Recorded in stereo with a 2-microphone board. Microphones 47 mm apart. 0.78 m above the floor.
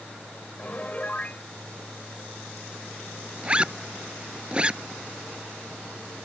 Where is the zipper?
25° right (ahead or behind).